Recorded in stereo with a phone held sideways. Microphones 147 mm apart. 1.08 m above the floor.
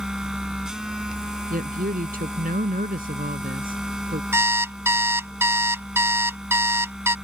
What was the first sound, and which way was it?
A machine running, 5° right (ahead or behind).